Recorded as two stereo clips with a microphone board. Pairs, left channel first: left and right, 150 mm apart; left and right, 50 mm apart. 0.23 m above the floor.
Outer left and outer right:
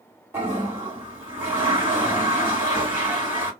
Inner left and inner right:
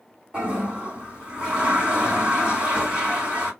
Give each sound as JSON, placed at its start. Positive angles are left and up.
{"t": 0.3, "sound": "a toilet flushing", "side_deg": -15, "distance_m": 2.5}